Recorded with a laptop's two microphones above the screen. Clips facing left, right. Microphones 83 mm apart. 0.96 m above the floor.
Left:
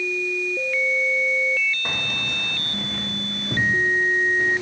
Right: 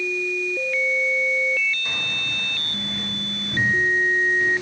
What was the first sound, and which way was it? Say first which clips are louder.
Keys jangling: left 2 dB; 50° left (ahead or behind).